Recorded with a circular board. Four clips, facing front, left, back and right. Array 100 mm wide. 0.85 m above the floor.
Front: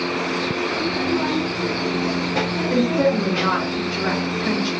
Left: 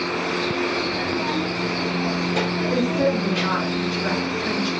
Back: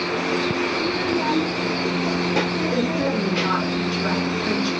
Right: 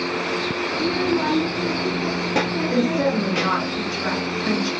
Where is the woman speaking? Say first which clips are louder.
Right 1 dB, front 7 dB; 20° right, 1.8 m.